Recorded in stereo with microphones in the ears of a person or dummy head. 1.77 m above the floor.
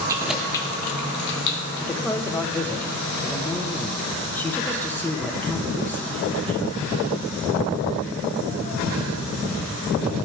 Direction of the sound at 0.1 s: 25° right (ahead or behind).